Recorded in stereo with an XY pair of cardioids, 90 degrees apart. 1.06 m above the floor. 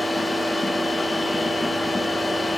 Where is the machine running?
20° left, 0.7 m.